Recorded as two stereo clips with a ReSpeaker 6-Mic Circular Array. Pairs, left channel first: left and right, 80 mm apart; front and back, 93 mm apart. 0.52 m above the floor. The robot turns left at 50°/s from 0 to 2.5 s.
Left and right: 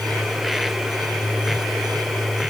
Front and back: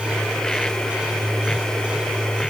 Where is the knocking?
No knocking in this recording.